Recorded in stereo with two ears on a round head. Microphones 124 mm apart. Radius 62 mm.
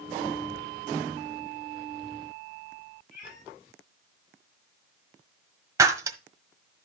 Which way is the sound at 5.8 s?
25° right (ahead or behind).